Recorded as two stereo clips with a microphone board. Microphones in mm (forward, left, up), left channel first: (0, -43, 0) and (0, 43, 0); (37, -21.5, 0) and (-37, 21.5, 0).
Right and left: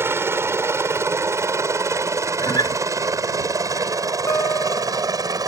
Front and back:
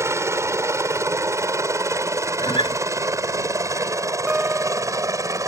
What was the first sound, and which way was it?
A helicopter, 125° left.